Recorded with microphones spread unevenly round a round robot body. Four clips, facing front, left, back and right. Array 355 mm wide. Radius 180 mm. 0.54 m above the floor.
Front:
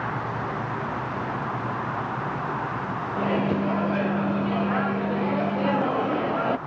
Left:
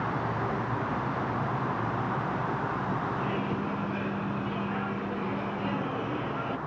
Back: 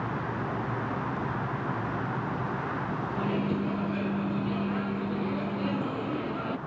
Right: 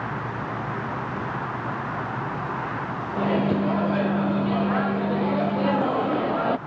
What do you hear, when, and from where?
3.2 s a microwave: 65° right, 0.6 m